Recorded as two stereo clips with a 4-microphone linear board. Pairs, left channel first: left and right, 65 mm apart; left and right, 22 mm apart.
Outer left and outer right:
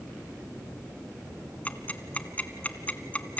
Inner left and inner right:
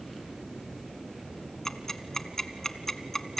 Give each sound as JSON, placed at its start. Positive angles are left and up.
{"t": 1.6, "sound": "ticking", "side_deg": 25, "distance_m": 1.2}